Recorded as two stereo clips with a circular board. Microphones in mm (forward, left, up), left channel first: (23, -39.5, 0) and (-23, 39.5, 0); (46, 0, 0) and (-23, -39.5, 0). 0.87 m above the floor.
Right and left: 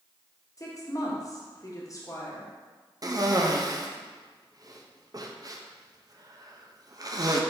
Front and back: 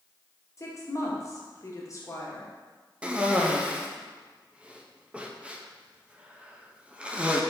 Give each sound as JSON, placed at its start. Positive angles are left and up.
{"t": 0.6, "sound": "a woman speaking", "azimuth_deg": -15, "distance_m": 1.0}
{"t": 3.0, "sound": "a cough", "azimuth_deg": 140, "distance_m": 0.6}